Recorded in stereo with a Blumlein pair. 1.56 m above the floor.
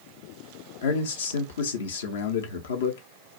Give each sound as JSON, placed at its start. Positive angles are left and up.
{"t": 0.8, "sound": "a man speaking", "azimuth_deg": 65, "distance_m": 0.7}